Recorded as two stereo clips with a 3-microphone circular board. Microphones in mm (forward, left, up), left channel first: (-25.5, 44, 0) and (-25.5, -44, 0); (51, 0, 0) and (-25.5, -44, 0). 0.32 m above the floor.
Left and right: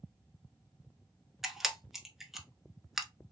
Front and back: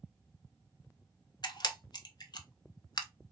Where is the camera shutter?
5° right, 0.5 m.